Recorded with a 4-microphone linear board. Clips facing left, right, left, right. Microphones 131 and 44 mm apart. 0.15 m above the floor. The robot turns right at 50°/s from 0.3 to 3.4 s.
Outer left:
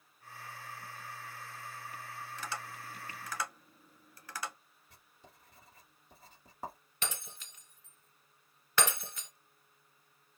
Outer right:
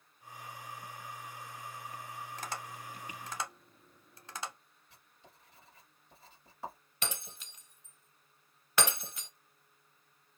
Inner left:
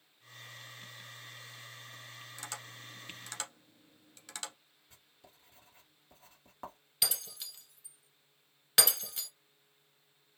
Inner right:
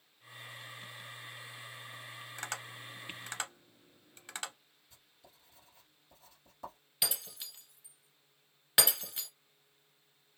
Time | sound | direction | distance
2.4 | tapping | 40° right (ahead or behind) | 0.8 m
4.9 | writing | 45° left (ahead or behind) | 1.4 m
7.0 | breaking glass | 10° right (ahead or behind) | 1.3 m